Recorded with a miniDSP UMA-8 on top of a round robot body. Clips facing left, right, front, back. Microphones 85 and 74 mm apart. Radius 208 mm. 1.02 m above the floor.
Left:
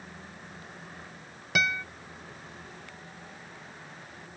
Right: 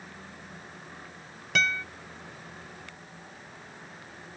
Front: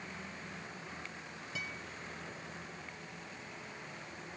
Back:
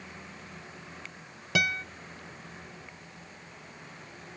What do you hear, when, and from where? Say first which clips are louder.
1.6 s a guitar: even, back 16 dB; 170° left